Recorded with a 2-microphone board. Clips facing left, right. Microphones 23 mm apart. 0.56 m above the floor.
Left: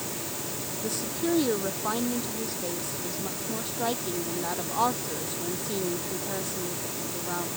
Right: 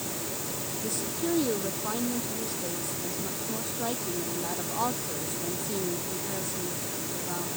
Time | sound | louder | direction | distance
0.8 | a woman speaking | left 2 dB | 20° left (ahead or behind) | ?